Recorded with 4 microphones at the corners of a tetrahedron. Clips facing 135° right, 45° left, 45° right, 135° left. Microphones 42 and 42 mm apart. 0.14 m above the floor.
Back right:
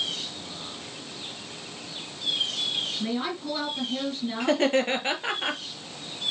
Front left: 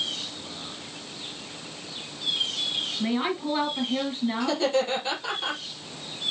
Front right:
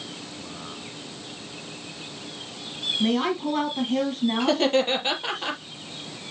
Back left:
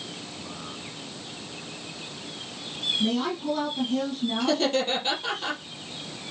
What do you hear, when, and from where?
3.0 s a woman speaking: 20° right, 3 m
4.4 s laughter: 100° right, 3.5 m